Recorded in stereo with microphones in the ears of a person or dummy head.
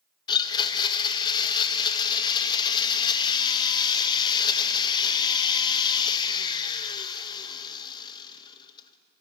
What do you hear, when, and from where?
0.3 s a blender: 20° left (ahead or behind), 1.3 m